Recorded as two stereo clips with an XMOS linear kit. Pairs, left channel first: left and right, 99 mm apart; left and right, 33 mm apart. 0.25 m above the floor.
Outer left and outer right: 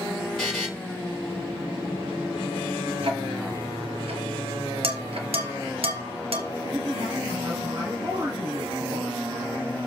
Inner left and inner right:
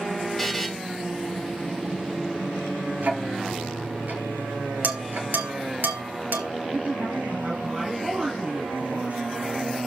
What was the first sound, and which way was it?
A buzzer, centre (ahead or behind).